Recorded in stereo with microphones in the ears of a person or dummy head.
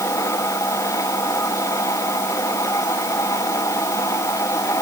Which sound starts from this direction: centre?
A machine running, at 0.0 s.